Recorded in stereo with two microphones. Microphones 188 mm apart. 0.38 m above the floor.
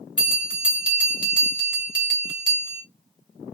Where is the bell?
25° left (ahead or behind), 1.6 m.